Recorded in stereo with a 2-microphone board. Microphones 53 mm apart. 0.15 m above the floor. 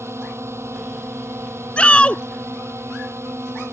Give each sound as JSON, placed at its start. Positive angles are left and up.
{"t": 0.0, "sound": "a drone", "side_deg": -55}
{"t": 1.8, "sound": "a shout", "side_deg": 25}